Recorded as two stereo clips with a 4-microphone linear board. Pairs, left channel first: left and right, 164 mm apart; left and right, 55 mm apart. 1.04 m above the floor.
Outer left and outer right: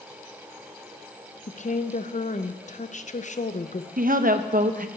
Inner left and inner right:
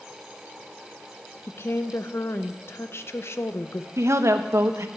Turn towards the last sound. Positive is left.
turn(degrees=-60)  # may be behind; listen again after turning